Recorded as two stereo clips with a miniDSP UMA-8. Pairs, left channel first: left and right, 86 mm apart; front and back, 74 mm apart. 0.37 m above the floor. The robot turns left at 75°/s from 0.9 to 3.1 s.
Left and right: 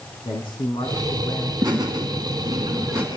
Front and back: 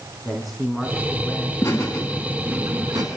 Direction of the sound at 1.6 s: 40° right.